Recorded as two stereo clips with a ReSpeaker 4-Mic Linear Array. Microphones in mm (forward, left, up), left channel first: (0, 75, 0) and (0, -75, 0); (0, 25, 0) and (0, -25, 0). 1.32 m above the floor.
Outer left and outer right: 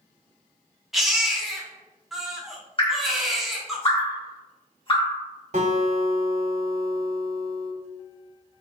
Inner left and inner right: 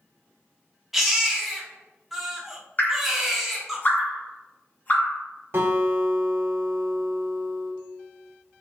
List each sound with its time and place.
0.9 s a baby crying: centre (ahead or behind), 0.9 m
2.8 s dripping: 35° left (ahead or behind), 1.5 m
5.5 s a guitar: 50° right (ahead or behind), 1.5 m